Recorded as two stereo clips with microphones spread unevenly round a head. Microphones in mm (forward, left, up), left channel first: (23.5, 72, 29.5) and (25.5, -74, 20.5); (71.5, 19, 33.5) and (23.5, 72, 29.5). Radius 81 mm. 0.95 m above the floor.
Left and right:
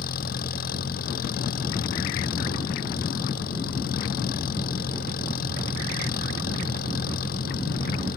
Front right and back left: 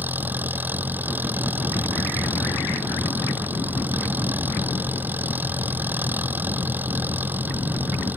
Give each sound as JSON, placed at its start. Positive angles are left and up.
{"t": 0.0, "sound": "an engine running", "azimuth_deg": 70}